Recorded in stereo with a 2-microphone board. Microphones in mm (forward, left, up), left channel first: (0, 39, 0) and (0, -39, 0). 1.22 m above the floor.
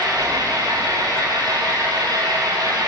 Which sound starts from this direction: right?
An engine running, at 0.0 s.